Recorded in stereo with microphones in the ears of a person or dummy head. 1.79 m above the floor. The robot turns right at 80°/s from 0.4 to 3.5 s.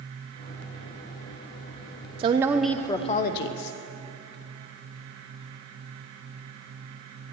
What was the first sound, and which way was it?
A woman speaking, 40° right.